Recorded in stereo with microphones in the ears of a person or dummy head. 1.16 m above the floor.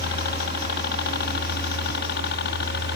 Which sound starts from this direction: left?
A helicopter, at 0.0 s.